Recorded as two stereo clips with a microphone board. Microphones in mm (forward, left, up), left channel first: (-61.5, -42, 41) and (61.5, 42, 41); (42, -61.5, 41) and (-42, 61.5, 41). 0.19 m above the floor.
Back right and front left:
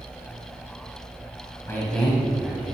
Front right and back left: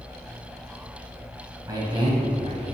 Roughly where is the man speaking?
Behind.